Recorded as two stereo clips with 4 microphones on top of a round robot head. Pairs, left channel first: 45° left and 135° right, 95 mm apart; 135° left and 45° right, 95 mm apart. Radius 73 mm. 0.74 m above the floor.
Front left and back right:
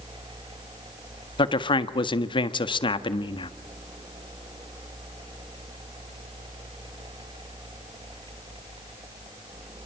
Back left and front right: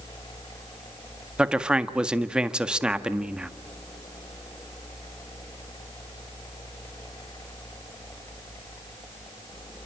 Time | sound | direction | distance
1.4 | a man speaking | 35° left | 1.6 m